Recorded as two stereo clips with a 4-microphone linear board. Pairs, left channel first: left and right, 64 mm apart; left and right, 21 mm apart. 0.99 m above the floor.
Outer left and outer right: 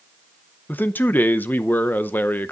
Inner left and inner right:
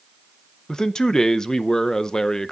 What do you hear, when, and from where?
0.7 s a man speaking: 30° left (ahead or behind), 0.6 m